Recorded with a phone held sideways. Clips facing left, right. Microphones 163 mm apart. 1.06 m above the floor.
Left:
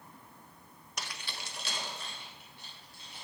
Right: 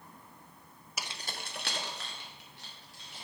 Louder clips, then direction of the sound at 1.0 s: Right 1 dB; 5° right (ahead or behind).